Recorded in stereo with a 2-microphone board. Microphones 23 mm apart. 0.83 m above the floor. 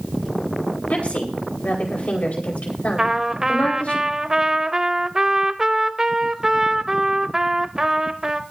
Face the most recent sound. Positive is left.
turn(degrees=-20)  # may be behind; listen again after turning